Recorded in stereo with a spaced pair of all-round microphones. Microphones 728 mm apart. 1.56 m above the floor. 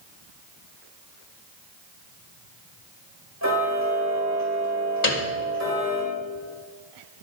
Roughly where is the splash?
No splash in this recording.